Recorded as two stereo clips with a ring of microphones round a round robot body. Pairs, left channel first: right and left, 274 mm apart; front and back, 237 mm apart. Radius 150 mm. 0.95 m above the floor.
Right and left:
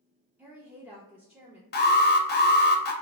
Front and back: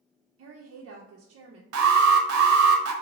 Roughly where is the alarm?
Behind right.